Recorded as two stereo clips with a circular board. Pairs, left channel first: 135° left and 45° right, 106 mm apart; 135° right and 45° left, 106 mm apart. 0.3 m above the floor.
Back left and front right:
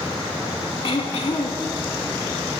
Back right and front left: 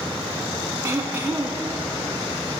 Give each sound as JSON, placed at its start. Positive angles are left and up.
{"t": 0.8, "sound": "throat clearing", "azimuth_deg": 110, "distance_m": 0.7}